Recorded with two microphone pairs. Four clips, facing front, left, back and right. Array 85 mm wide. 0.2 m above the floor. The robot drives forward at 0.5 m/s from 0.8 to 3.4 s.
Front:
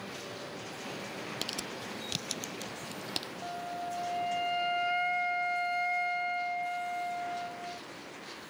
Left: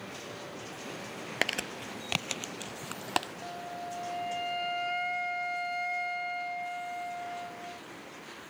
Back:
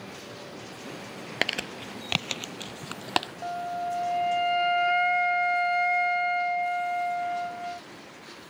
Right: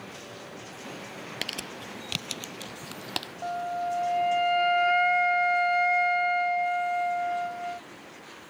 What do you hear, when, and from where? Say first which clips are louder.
1.4 s crumpling: left 8 dB, back 7 dB; 155° left; by 3.3 s 165° left
3.4 s a flute: right 9 dB, back 7 dB; 120° right